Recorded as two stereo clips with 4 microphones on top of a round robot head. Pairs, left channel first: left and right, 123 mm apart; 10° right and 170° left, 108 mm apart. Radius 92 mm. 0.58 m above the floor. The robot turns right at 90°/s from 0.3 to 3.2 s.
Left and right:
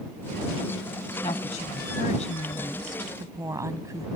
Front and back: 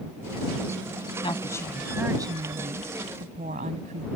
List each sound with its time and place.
1.2 s a woman speaking: 25° left; by 4.1 s 155° right